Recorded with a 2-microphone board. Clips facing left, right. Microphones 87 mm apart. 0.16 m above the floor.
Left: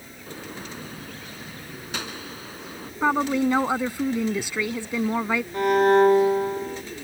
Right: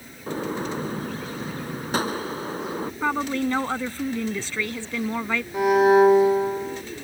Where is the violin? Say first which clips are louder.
Right 2 dB; 5° right (ahead or behind).